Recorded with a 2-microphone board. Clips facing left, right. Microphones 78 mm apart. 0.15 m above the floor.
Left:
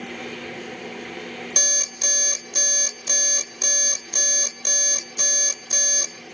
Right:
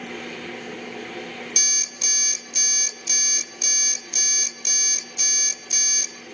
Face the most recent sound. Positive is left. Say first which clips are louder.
# left 4 dB
turn(degrees=45)  # may be behind; listen again after turning